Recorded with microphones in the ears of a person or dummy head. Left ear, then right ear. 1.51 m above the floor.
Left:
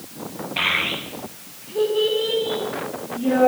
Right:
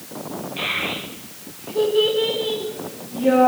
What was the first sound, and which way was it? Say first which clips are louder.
A child speaking: left 3 dB; 50° left (ahead or behind).